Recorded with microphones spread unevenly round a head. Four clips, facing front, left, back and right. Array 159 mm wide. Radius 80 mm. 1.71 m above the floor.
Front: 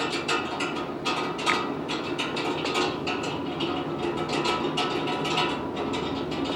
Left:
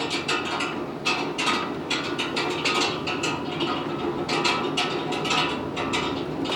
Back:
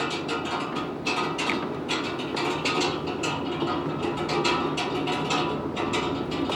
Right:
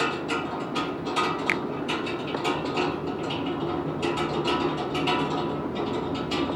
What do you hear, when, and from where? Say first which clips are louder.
1.5 s a finger snap: left 2 dB, front 2 dB; 125° right